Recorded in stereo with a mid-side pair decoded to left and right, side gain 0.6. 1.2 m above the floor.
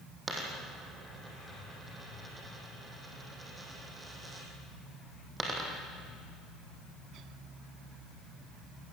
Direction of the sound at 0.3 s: 15° right.